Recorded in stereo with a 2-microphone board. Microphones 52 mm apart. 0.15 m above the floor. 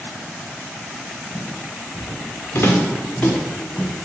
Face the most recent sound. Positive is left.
turn(degrees=20)  # may be behind; listen again after turning